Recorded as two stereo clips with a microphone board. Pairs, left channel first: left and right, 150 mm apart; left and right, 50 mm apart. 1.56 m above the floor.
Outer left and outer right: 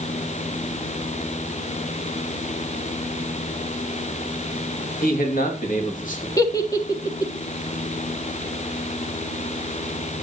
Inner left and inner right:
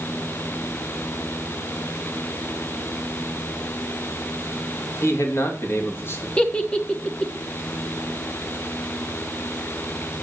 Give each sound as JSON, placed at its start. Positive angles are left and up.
{"t": 5.0, "sound": "a man speaking", "side_deg": 70, "distance_m": 2.5}
{"t": 6.4, "sound": "a giggle", "side_deg": 20, "distance_m": 1.3}